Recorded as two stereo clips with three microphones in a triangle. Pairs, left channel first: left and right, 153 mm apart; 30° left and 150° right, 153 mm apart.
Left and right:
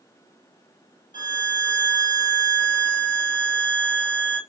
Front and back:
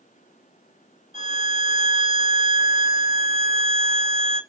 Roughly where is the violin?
Left.